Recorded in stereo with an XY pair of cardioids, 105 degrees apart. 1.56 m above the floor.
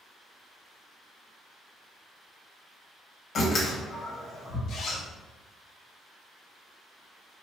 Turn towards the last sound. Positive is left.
turn(degrees=60)